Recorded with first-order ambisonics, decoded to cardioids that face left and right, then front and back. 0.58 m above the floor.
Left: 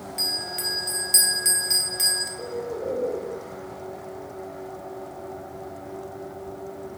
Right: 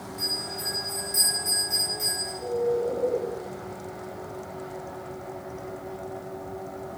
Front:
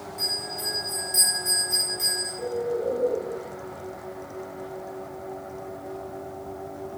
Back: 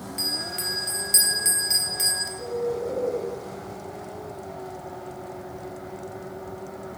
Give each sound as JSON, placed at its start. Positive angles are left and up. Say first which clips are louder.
{"t": 0.2, "sound": "a bell", "louder": "left 3 dB, back 1 dB", "azimuth_deg": 130, "distance_m": 0.7}
{"t": 2.4, "sound": "a bird", "louder": "right 5 dB, even", "azimuth_deg": 90, "distance_m": 1.0}